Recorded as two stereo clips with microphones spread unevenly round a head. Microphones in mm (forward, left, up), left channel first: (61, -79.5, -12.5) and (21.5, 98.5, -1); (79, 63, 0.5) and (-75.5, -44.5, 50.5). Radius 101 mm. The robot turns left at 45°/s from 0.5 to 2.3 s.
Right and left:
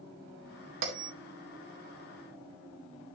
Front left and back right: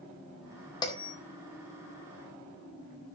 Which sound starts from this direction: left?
A bell, at 0.8 s.